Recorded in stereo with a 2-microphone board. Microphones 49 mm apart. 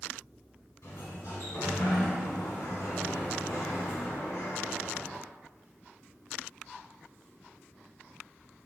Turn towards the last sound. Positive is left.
turn(degrees=80)